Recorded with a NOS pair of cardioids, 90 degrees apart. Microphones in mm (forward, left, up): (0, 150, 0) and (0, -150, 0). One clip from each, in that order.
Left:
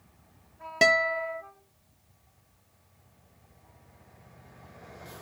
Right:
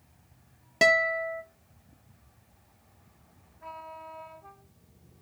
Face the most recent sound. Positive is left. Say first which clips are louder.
# even
turn(degrees=0)